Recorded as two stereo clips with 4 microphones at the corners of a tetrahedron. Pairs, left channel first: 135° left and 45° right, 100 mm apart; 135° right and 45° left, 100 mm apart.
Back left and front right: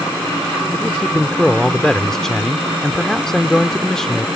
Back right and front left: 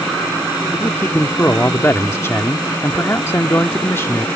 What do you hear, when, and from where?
0.7 s a man speaking: 150° right